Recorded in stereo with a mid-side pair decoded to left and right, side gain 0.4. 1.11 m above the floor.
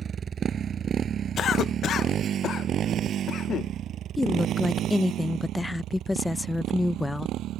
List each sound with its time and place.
0.0 s a motorcycle: 50° right; by 7.6 s 80° right
1.4 s a cough: 65° left
4.2 s a woman speaking: 15° left